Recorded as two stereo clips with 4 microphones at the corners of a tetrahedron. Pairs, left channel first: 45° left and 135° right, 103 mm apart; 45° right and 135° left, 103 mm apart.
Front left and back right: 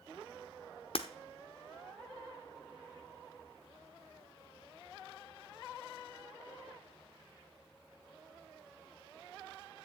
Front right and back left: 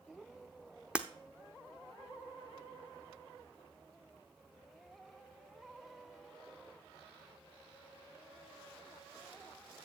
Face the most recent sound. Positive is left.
turn(degrees=55)